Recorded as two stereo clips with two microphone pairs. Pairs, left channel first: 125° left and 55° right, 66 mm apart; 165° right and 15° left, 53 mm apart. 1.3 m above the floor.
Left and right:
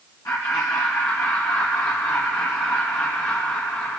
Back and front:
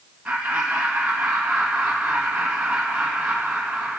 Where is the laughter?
80° left, 1.4 m.